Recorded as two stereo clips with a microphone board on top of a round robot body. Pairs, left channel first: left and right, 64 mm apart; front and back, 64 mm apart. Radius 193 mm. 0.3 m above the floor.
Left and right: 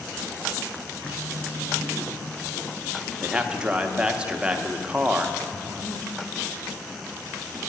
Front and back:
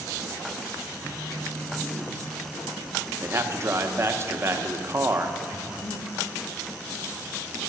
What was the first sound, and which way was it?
A phone buzzing, 155° right.